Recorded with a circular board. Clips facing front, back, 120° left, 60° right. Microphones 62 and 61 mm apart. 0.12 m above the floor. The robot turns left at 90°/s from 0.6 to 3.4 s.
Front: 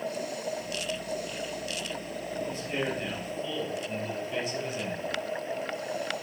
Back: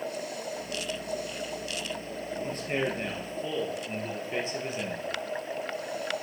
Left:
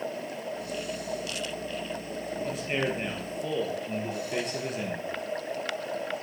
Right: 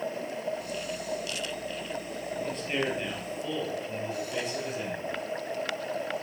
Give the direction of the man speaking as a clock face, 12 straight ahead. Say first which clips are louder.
Back 3 dB, left 1 dB; 5 o'clock.